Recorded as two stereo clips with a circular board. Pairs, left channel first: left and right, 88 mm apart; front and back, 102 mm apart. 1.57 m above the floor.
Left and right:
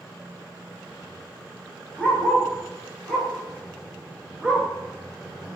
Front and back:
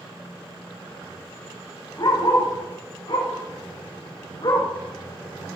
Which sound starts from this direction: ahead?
A dog barking, at 2.0 s.